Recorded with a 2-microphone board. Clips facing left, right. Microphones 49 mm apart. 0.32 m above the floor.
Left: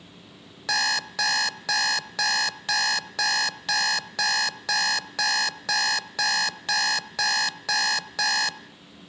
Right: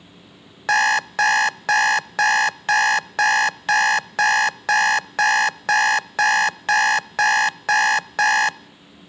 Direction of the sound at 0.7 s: 40° right (ahead or behind).